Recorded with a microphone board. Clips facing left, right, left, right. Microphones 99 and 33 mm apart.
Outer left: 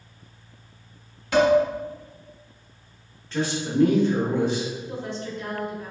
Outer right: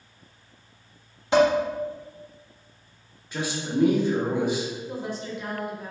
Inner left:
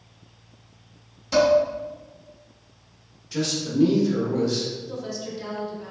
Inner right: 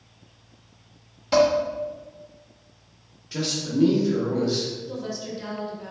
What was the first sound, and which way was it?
Dishes clattering, 25° right (ahead or behind).